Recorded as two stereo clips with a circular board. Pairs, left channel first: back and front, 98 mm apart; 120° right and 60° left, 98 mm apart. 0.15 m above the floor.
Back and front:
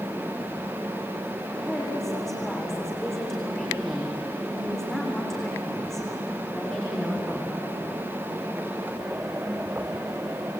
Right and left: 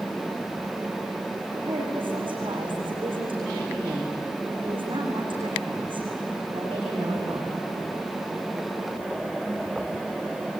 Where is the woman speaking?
95° left, 8 m.